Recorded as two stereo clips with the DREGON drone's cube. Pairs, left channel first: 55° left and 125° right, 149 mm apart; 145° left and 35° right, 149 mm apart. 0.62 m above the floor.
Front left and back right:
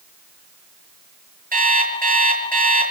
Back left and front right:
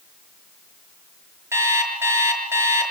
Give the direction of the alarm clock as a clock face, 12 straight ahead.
4 o'clock.